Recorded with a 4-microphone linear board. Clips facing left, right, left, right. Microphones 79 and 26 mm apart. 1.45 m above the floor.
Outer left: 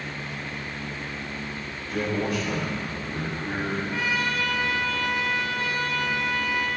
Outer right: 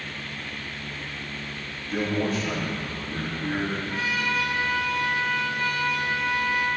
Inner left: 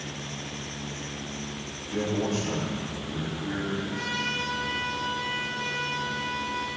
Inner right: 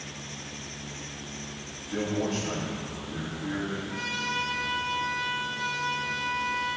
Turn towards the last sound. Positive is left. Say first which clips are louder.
# even, inner right 1 dB
turn(degrees=-30)  # may be behind; listen again after turning